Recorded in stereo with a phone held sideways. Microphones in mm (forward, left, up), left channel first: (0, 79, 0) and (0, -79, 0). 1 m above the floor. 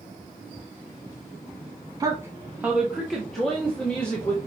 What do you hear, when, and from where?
2.0 s a woman speaking: 25° right (ahead or behind), 1.2 m; by 4.4 s 10° left (ahead or behind), 2 m